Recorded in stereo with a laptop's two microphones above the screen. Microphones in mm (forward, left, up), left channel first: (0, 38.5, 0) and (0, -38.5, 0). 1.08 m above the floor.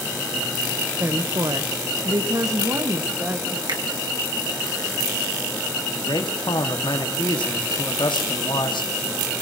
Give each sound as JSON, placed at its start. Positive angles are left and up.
{"t": 1.0, "sound": "a woman speaking", "side_deg": -40, "distance_m": 0.8}
{"t": 3.7, "sound": "a finger snap", "side_deg": -70, "distance_m": 1.8}
{"t": 6.0, "sound": "a man speaking", "side_deg": 85, "distance_m": 1.6}